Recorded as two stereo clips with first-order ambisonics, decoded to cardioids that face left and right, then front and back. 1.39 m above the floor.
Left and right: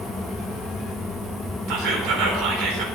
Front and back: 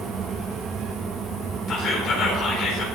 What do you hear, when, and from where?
1.7 s whispering: 55° right, 4.5 m